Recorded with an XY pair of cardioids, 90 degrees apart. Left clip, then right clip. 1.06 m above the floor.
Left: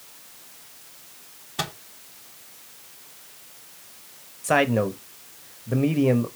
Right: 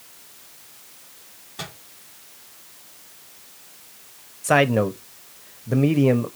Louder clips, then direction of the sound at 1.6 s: Left 6 dB; 65° left.